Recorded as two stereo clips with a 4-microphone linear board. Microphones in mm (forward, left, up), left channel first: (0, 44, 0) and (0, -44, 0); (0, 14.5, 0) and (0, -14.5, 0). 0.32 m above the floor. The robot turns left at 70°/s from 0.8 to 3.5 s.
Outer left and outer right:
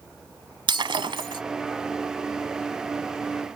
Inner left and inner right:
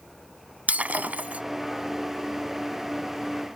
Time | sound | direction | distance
0.7 | breaking glass | 75° right | ?